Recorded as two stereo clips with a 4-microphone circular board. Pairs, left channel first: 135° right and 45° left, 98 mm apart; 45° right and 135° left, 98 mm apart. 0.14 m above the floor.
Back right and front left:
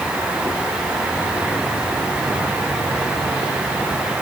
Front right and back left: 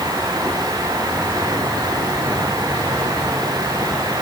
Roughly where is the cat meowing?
No cat meowing in this recording.